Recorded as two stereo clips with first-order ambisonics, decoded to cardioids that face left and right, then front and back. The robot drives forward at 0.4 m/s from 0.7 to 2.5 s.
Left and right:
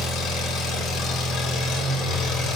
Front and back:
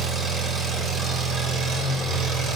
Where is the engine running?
120° left, 1.5 m; by 2.6 s 140° left, 2.0 m.